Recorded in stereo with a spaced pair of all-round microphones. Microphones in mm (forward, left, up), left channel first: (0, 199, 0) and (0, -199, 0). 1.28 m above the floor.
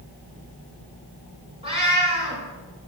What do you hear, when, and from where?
1.6 s a cat meowing: 15° right (ahead or behind), 2.5 m